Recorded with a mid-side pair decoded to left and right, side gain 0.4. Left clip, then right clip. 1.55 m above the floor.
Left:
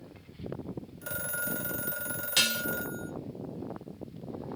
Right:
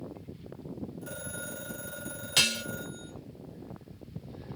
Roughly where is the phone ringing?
Left.